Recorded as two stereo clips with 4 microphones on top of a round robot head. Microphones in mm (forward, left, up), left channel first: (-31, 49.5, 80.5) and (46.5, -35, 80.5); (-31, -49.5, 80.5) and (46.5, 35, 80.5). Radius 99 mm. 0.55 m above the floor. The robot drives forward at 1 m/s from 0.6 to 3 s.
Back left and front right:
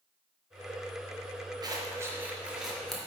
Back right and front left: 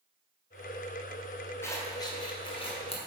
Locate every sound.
1.6 s scissors: 75° right, 1.4 m; by 3.0 s 140° right, 1.8 m